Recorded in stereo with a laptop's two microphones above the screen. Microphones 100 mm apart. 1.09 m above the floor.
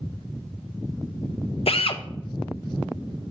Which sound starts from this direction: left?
A drill, at 1.7 s.